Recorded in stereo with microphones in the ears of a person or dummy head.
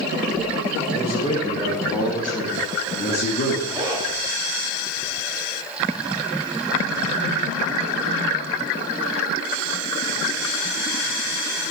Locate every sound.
0.9 s a man speaking: 35° left (ahead or behind), 3 m; by 3.6 s 55° left (ahead or behind), 1.7 m
3.7 s a zipper: 25° right (ahead or behind), 2.5 m